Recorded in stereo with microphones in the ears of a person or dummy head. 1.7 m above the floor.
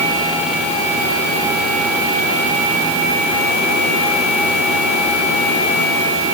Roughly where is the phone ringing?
No phone ringing in this recording.